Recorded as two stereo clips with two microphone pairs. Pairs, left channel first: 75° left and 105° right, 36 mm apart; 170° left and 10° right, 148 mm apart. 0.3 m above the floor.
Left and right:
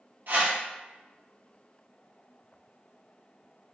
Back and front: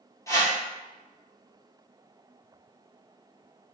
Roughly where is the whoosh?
Behind right.